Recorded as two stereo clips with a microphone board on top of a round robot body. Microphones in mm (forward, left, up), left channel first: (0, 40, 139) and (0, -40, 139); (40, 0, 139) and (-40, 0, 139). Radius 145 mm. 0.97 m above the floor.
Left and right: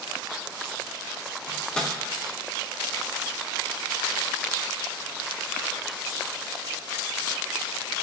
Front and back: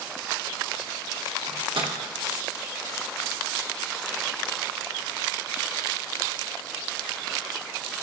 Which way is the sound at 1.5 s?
165° left.